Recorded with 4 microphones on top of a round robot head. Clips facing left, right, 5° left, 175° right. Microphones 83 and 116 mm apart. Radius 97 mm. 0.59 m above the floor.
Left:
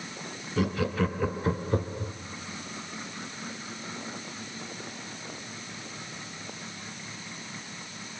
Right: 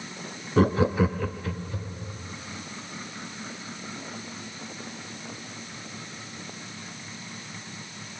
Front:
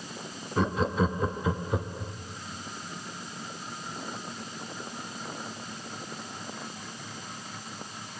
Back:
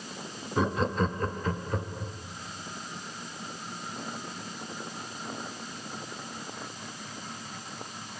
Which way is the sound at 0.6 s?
90° right.